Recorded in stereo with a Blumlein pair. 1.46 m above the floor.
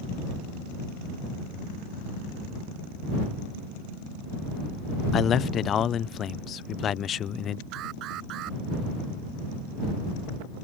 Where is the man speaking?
25° left.